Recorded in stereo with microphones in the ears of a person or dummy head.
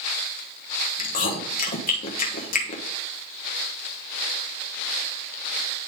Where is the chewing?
45° left (ahead or behind), 1.2 m.